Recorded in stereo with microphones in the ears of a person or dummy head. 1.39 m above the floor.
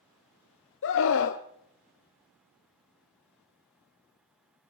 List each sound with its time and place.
0.8 s a scream: 70° left (ahead or behind), 0.7 m